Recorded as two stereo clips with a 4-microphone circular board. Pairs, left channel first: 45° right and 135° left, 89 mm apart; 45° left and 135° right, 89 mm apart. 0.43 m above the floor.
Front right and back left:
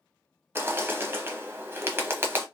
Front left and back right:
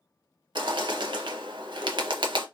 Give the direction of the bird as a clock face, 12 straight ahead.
5 o'clock.